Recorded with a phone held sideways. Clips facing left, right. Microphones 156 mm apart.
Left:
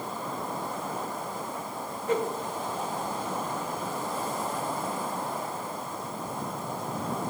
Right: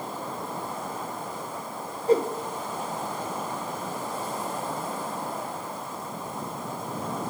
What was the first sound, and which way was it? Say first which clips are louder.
A whoosh: right 6 dB; 35° right (ahead or behind).